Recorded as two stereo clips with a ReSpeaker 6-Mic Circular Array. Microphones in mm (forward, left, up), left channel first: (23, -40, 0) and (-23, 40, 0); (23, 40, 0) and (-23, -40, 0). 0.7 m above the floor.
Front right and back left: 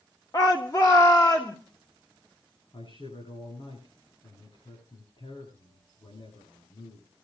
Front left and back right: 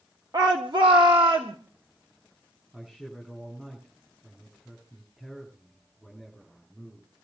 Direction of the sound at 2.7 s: 35° right.